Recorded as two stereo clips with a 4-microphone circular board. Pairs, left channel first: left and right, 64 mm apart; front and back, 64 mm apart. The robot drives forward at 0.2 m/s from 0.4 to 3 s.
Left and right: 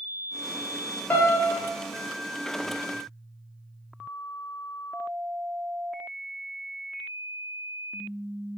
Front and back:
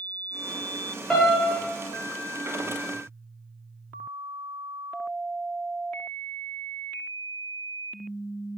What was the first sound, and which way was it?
A piano, 75° left.